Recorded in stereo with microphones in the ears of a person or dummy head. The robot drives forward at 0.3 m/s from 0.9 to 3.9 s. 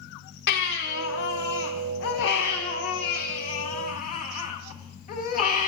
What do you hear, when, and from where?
0.5 s a baby crying: 60° left (ahead or behind), 1.0 m; by 5.7 s 45° left (ahead or behind), 1.2 m